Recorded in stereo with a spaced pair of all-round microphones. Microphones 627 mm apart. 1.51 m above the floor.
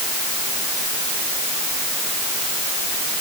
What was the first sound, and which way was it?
Only background noise.